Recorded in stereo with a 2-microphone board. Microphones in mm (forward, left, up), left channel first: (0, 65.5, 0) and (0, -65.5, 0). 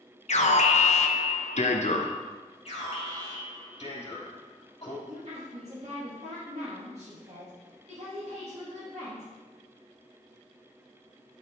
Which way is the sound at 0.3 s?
60° left (ahead or behind).